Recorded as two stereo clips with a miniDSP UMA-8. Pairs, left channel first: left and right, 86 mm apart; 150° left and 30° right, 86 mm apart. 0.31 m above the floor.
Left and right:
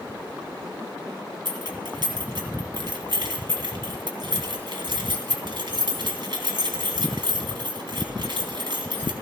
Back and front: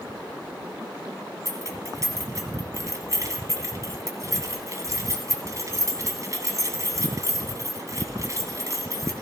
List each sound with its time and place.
1.4 s keys jangling: 75° right, 1.7 m